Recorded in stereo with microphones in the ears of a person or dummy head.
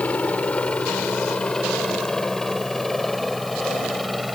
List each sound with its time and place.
0.0 s a helicopter: 5° left (ahead or behind); by 4.3 s 5° right (ahead or behind)